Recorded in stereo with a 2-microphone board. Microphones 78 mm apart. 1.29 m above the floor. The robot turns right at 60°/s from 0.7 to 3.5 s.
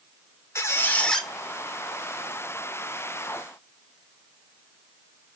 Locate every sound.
0.6 s a squeak: 145° left, 0.6 m; by 1.3 s straight behind, 0.6 m